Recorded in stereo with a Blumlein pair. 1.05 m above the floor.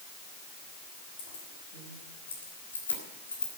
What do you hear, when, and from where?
1.2 s keys jangling: 60° left, 6 m; by 3.5 s 75° left, 4 m